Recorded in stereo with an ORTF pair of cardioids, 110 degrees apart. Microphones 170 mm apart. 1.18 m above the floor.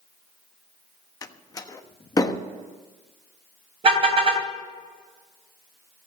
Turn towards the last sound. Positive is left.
turn(degrees=-40)